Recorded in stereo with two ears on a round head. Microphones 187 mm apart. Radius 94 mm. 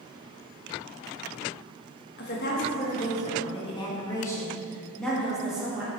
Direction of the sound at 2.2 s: 50° left (ahead or behind).